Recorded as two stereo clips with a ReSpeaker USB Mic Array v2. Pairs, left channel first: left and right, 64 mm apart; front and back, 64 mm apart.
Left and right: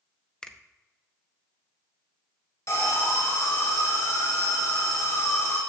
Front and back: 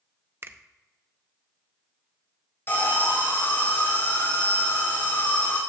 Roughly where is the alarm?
Ahead left.